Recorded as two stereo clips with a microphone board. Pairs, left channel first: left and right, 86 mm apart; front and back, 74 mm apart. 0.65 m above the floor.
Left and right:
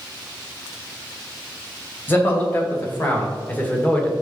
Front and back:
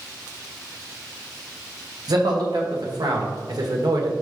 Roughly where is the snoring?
No snoring in this recording.